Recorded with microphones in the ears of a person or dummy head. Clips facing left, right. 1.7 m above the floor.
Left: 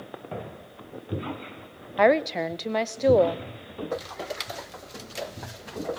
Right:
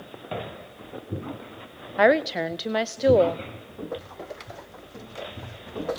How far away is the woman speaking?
About 0.6 m.